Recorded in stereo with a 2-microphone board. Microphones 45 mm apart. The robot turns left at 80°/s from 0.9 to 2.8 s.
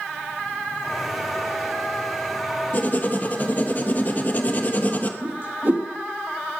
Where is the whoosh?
50° right (ahead or behind), 2 m.